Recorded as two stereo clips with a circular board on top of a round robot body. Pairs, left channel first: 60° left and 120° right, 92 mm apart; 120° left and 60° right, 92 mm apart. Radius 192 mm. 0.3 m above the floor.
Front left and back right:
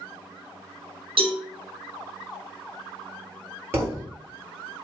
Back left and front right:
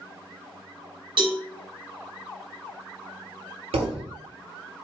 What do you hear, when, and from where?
1.2 s a cowbell: 95° right, 1.3 m
3.7 s a thud: 55° right, 1.3 m